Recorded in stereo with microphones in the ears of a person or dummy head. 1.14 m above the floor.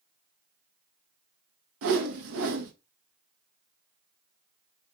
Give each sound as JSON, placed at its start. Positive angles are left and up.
{"t": 1.8, "sound": "a whoosh", "side_deg": -70, "distance_m": 0.6}